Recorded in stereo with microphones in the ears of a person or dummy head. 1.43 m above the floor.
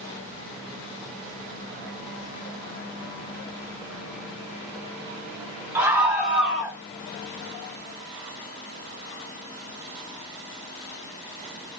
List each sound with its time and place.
5.8 s a scream: 15° right (ahead or behind), 4 m; by 6.8 s 5° right (ahead or behind), 4 m